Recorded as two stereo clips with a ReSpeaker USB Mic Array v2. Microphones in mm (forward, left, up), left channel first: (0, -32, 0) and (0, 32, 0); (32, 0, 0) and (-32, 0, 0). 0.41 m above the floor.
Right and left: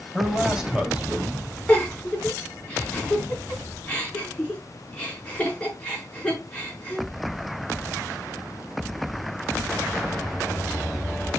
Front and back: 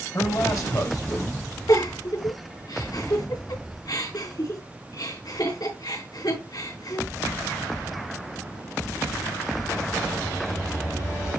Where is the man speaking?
5° left, 2.5 m; by 1.5 s 20° left, 3.5 m.